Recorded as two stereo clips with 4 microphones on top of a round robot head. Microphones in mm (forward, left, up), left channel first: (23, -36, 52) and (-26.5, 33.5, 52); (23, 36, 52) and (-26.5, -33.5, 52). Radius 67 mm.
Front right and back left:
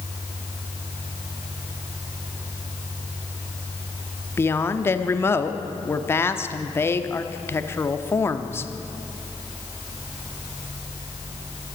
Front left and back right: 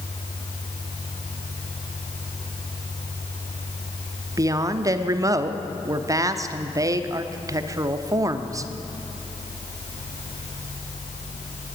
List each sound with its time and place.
4.4 s a woman speaking: 100° right, 1.0 m